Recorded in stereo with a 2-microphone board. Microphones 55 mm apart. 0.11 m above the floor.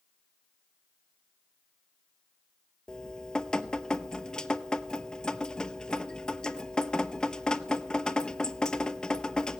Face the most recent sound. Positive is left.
turn(degrees=15)  # may be behind; listen again after turning